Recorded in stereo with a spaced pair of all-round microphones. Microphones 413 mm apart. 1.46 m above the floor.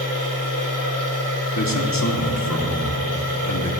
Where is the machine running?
60° left (ahead or behind), 2.5 m.